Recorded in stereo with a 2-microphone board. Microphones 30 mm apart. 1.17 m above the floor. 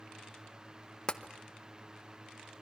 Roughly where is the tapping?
Left.